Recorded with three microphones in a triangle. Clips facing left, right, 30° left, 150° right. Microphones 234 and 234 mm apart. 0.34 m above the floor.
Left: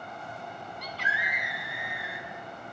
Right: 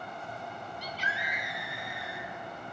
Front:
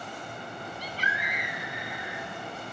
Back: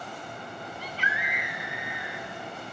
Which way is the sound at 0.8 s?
75° left.